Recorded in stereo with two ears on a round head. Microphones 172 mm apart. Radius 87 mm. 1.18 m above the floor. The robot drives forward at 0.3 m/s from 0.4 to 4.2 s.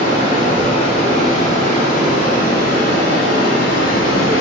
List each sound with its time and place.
0.0 s running water: 30° left (ahead or behind), 1.7 m; by 4.4 s 70° left (ahead or behind), 1.0 m